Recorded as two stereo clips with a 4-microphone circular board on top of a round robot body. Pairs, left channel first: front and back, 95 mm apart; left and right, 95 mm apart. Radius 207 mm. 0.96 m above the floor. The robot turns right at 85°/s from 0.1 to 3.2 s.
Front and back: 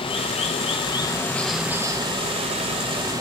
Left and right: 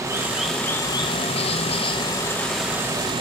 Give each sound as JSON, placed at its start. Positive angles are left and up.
{"t": 0.0, "sound": "running water", "azimuth_deg": -30, "distance_m": 0.9}